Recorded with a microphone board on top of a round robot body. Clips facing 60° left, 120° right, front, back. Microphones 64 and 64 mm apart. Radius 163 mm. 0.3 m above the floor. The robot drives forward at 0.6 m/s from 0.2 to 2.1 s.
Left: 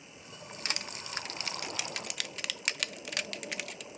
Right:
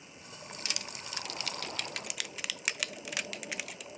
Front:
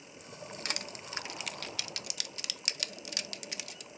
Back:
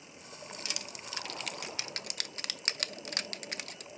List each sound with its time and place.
0.7 s crushing: 20° left, 0.7 m; by 3.9 s 155° left, 0.6 m